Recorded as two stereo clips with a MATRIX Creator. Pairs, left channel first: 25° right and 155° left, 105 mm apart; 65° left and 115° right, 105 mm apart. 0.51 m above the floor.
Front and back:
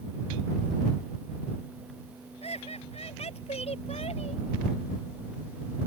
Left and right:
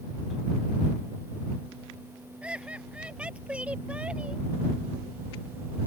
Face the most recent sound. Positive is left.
turn(degrees=-35)